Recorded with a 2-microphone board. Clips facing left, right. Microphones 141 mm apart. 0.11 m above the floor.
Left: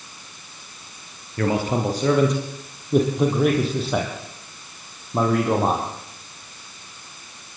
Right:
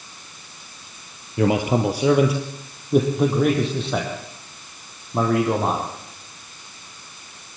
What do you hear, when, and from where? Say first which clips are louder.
1.4 s a man speaking: right 3 dB; 20° right (ahead or behind), 1.9 m; by 5.8 s 10° left (ahead or behind), 4.5 m